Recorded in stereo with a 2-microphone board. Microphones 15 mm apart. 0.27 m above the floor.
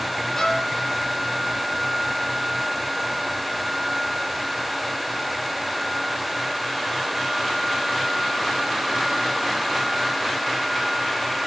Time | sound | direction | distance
0.4 | a violin | 25° left (ahead or behind) | 3.5 m